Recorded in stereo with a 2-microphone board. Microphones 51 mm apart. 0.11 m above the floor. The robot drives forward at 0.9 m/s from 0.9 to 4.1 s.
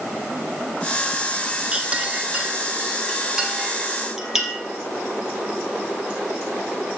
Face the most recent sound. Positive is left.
turn(degrees=-10)  # may be behind; listen again after turning